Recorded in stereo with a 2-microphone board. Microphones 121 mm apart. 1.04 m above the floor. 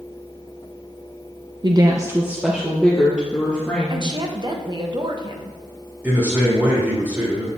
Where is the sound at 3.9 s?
40° right (ahead or behind), 0.9 m.